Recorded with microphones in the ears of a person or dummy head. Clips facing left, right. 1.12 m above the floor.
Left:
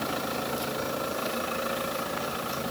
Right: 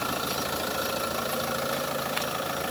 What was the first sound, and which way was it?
Only background noise.